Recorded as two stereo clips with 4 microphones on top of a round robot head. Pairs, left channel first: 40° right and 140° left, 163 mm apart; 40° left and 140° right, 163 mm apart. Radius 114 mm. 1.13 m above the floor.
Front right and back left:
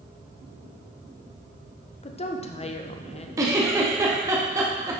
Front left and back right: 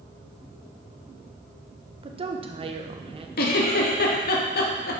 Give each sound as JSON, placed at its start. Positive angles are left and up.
{"t": 2.0, "sound": "a woman speaking", "azimuth_deg": -85, "distance_m": 0.9}
{"t": 3.4, "sound": "a giggle", "azimuth_deg": 65, "distance_m": 1.1}